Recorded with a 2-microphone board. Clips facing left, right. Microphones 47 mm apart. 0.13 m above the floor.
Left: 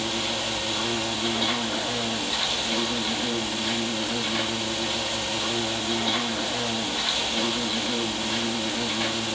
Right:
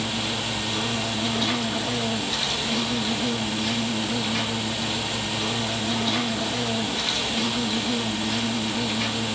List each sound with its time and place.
0.0 s an insect: 15° left (ahead or behind), 1.1 m